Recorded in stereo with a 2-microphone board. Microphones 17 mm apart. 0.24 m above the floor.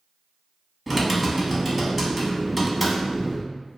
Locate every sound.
0.9 s typing on a keyboard: 5° right (ahead or behind), 0.6 m